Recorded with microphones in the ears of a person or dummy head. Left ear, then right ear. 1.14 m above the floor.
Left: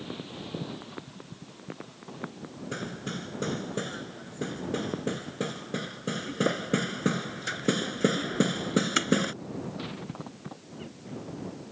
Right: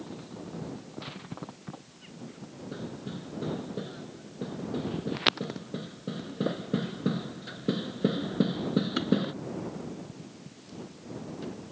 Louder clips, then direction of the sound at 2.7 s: Left 5 dB; 60° left (ahead or behind).